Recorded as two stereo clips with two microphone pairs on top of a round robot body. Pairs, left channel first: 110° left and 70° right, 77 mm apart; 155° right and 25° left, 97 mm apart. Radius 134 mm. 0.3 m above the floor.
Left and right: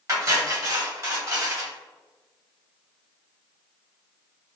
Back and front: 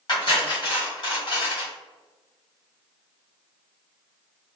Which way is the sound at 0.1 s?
110° right.